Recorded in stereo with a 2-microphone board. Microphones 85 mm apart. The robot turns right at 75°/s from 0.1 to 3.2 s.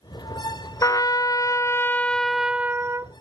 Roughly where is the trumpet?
Left.